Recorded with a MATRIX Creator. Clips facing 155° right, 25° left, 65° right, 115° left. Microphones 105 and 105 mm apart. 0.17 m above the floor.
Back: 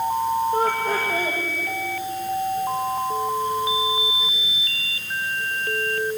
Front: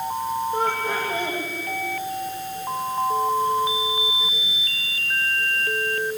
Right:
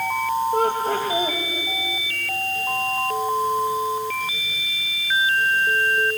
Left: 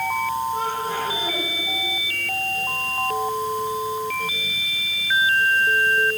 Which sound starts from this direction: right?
Laughter, at 0.5 s.